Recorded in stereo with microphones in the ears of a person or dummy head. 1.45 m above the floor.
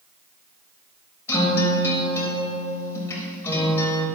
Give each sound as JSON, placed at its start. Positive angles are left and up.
{"t": 1.3, "sound": "a guitar", "side_deg": 15, "distance_m": 4.5}